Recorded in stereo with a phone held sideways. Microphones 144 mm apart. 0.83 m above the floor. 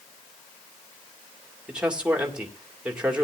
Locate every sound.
1.7 s a man speaking: 5° right (ahead or behind), 2 m